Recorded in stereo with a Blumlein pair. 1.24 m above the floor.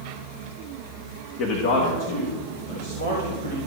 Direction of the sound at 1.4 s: 35° left.